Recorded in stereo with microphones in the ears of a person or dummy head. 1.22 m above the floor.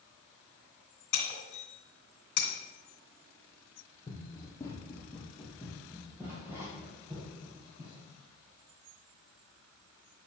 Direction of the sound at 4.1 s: 25° left (ahead or behind).